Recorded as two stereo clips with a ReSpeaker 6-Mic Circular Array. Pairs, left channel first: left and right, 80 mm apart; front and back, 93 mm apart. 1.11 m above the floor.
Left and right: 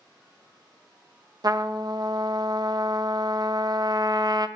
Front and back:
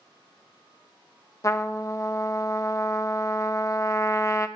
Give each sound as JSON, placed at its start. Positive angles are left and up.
{"t": 1.4, "sound": "a trumpet", "azimuth_deg": -55, "distance_m": 0.6}